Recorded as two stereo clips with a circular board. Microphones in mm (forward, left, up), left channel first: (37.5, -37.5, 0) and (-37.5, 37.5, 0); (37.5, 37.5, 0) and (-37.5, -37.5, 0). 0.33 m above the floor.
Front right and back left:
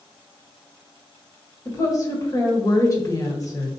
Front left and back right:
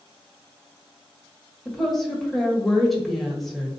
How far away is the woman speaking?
About 1.3 m.